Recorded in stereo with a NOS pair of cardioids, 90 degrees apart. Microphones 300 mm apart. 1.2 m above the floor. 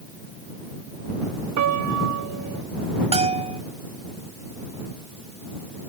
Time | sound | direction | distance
1.6 | a piano | 70° right | ?
3.1 | a bell | 20° right | ?